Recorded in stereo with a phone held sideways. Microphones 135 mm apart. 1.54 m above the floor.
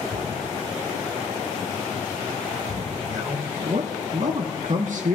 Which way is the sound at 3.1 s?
70° right (ahead or behind).